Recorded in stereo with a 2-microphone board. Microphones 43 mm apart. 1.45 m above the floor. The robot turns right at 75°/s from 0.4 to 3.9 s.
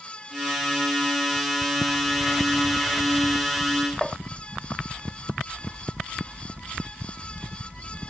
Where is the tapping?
10° left (ahead or behind).